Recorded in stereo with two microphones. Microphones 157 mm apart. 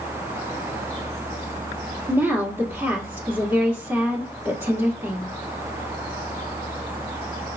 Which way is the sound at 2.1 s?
15° right (ahead or behind).